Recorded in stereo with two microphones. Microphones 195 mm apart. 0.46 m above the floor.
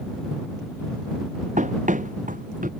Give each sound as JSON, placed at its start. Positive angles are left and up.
{"t": 1.6, "sound": "running footsteps", "side_deg": -40}